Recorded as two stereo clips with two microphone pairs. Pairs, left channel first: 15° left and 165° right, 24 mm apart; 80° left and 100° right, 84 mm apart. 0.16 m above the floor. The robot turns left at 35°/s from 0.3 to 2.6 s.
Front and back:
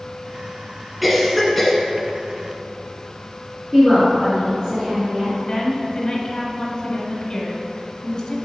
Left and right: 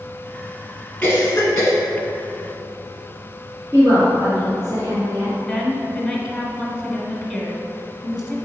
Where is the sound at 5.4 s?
10° right, 1.1 m.